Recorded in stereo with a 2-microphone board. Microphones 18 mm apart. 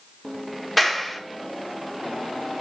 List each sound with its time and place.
0.8 s a clap: centre (ahead or behind), 1.8 m